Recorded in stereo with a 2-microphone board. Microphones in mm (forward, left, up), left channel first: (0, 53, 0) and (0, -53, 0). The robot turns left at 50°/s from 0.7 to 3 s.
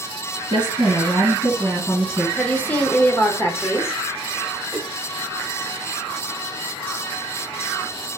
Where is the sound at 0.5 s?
135° right, 3 m; by 2.3 s 150° left, 3 m.